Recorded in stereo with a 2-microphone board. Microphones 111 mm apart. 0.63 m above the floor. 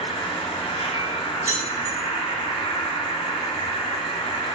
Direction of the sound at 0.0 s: 75° left (ahead or behind).